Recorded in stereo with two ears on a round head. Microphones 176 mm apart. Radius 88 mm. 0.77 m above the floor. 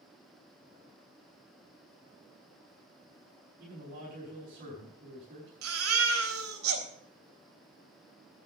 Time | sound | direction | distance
3.6 | a man speaking | 45° right (ahead or behind) | 5 m
5.6 | a baby crying | 80° right | 3 m